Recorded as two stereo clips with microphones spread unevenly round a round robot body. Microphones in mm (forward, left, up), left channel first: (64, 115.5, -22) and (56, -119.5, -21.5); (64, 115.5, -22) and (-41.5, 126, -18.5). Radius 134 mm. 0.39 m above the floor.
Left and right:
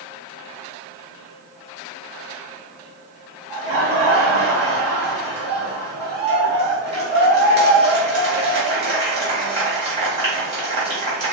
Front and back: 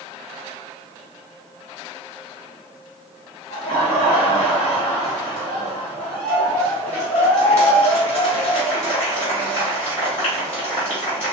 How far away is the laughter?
About 2.5 m.